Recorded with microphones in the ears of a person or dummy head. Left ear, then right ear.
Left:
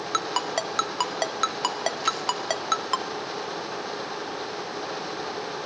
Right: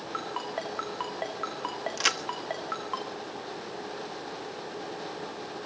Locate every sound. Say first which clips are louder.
0.1 s a ringtone: left 8 dB; 70° left (ahead or behind), 1.6 m
2.0 s a crack: right 3 dB; 50° right (ahead or behind), 1.2 m